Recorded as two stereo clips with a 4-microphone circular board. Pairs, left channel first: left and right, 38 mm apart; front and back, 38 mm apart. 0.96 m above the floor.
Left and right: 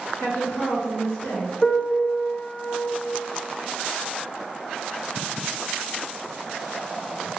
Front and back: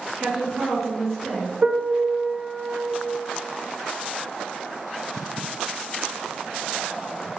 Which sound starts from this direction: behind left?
A piano, at 1.6 s.